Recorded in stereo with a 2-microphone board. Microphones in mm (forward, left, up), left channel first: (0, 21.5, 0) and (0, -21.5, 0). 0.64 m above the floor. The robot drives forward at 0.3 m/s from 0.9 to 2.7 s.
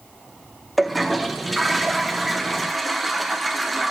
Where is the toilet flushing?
Centre (ahead or behind), 1.1 m.